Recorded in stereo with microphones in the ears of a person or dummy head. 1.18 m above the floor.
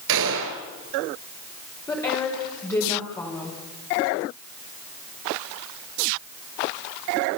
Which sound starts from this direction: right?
A gunshot, at 0.1 s.